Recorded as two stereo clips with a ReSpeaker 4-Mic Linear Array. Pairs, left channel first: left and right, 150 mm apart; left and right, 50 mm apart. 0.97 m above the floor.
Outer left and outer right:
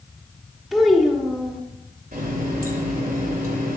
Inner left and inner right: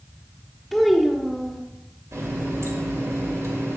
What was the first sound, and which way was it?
A child speaking, centre (ahead or behind).